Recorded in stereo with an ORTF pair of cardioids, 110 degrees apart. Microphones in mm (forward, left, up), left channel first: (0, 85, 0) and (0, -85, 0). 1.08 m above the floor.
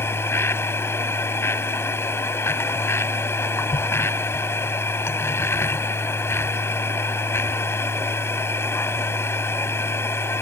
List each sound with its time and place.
0.0 s a machine running: 15° left